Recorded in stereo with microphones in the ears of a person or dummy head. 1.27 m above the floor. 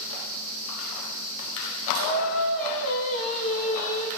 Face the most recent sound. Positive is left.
turn(degrees=75)  # may be behind; listen again after turning